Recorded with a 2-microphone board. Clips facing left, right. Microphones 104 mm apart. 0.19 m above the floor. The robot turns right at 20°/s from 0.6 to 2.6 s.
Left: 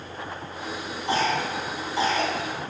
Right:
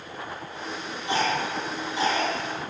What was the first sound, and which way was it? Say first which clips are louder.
A cough: left 1 dB; 35° left (ahead or behind).